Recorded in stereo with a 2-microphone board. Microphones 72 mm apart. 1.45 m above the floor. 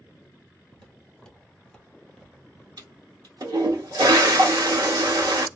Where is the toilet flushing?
65° right (ahead or behind), 0.9 m.